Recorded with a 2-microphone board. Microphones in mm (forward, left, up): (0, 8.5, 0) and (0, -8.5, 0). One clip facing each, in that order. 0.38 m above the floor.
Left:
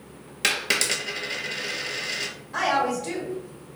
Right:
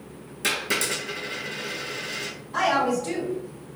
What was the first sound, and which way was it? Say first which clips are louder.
A dropped coin: left 2 dB; 45° left (ahead or behind).